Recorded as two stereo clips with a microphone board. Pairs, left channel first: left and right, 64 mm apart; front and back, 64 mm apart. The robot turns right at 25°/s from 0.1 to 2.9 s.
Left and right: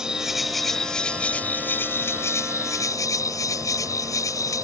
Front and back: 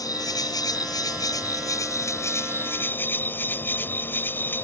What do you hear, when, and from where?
0.0 s an insect: 10° right; by 4.6 s 60° left